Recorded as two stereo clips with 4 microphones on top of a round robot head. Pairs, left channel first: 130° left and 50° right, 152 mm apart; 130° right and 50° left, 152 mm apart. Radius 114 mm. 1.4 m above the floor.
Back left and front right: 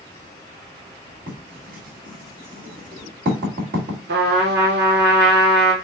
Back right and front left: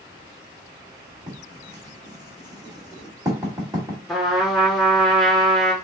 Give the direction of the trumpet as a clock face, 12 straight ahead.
1 o'clock.